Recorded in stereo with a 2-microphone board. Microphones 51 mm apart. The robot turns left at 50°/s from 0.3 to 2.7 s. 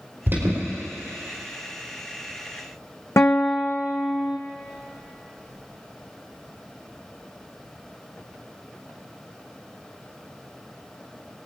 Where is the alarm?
45° right (ahead or behind), 5 m; by 0.6 s 60° right (ahead or behind), 5 m.